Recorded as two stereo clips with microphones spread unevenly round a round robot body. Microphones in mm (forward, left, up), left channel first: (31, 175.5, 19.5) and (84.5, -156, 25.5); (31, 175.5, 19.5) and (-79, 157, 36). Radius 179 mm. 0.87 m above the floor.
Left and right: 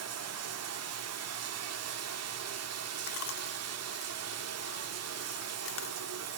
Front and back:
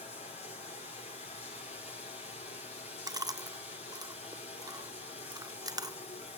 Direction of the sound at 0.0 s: 35° right.